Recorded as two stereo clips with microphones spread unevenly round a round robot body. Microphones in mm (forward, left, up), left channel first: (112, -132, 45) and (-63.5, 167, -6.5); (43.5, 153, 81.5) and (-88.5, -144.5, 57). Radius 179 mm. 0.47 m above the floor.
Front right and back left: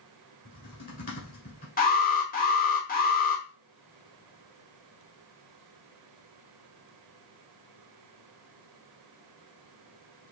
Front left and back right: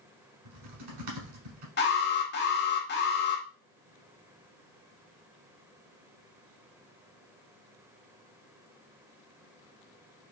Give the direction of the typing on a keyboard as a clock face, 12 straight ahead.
4 o'clock.